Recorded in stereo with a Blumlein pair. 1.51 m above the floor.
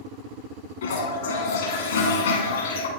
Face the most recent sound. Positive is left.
turn(degrees=65)